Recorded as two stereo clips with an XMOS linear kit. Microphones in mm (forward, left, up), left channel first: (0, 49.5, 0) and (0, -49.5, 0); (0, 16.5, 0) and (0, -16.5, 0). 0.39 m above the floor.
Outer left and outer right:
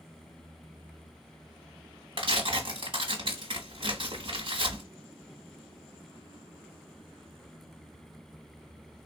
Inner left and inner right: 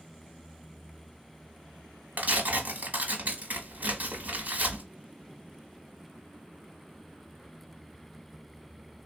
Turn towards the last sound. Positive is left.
turn(degrees=-60)  # may be behind; listen again after turning